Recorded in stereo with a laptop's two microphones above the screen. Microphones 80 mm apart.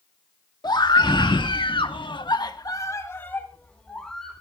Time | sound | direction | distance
0.6 | a scream | 60° left (ahead or behind) | 2.5 m